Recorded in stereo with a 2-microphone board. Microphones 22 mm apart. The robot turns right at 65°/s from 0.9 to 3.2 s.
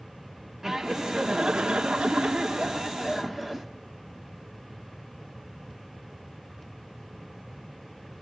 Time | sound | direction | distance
0.6 | laughter | 160° right | 1.7 m